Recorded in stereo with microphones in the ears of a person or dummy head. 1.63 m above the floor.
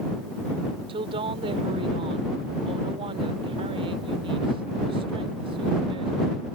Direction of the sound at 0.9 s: 30° right (ahead or behind).